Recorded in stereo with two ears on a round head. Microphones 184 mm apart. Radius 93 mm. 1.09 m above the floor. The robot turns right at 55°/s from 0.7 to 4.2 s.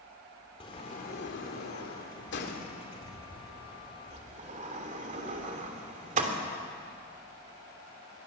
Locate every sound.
0.6 s a sliding door: 30° left (ahead or behind), 3 m; by 6.4 s 40° right (ahead or behind), 3 m